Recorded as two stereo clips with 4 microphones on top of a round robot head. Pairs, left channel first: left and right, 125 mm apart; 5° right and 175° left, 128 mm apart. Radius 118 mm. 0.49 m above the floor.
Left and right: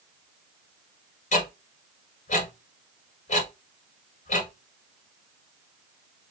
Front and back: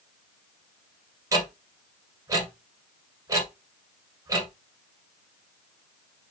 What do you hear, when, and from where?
1.3 s ticking: 110° left, 1.7 m